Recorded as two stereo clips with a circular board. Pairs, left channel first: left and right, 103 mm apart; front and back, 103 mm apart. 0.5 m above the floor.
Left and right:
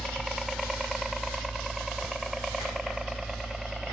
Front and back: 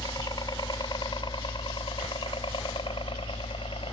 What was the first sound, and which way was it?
A helicopter, straight ahead.